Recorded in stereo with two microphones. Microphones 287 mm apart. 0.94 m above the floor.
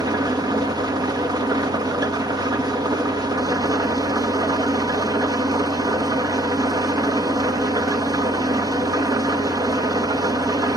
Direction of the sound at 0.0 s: 15° right (ahead or behind).